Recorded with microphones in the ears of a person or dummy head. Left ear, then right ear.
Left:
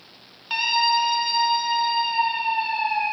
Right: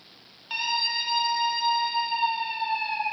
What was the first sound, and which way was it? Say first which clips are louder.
A scream: left 6 dB; 5° left (ahead or behind).